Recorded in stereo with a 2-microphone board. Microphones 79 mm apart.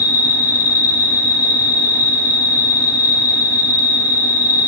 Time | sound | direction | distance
0.0 | an insect | 45° left (ahead or behind) | 0.8 m